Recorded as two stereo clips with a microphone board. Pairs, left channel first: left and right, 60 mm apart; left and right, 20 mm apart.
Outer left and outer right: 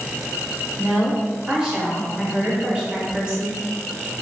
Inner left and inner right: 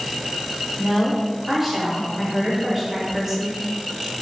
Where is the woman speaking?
15° right (ahead or behind), 1.0 m.